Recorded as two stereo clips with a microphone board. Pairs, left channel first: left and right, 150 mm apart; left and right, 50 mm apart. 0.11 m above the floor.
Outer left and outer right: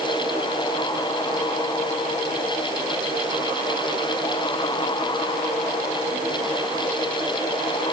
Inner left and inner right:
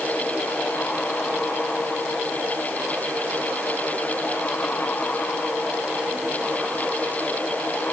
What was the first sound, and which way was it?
Only background noise.